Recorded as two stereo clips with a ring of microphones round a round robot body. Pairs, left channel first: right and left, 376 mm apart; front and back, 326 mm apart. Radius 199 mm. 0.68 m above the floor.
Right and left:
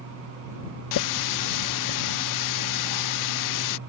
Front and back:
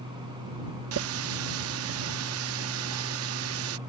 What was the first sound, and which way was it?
A running tap, 130° right.